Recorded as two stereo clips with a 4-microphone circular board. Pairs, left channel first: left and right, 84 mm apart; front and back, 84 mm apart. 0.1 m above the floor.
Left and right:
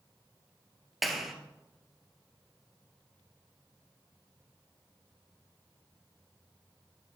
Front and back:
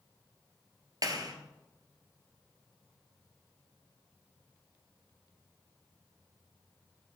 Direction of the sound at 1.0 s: Straight behind.